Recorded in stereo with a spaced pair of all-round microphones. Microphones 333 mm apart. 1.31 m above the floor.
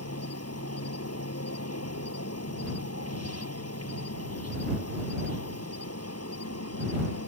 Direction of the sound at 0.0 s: 50° left (ahead or behind).